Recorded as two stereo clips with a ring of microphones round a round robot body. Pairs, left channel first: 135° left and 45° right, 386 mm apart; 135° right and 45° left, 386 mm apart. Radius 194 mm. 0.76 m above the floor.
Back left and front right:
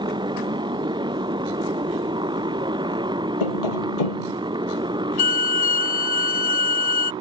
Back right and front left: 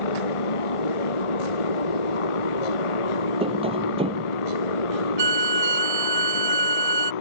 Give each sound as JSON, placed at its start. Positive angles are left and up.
{"t": 0.0, "sound": "a motorcycle", "azimuth_deg": -125}
{"t": 3.4, "sound": "tapping", "azimuth_deg": 120}
{"t": 5.2, "sound": "a violin", "azimuth_deg": 110}